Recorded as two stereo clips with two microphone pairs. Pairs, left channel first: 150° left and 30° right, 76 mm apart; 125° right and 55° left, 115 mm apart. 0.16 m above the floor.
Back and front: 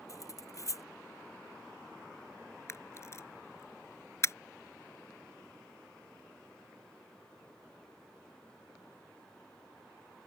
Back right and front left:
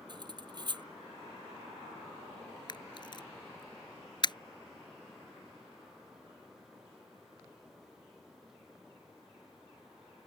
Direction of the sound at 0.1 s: 105° left.